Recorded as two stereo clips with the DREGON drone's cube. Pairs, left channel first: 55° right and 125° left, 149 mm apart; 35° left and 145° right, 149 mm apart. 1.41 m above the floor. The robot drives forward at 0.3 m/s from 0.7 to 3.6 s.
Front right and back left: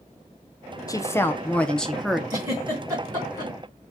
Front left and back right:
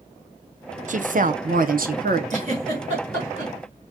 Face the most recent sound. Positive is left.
turn(degrees=-170)